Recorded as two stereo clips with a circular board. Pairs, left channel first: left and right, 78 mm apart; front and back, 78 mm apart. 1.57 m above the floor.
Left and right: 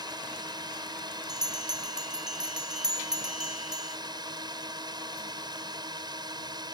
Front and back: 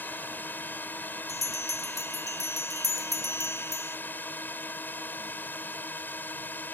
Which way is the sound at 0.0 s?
65° right.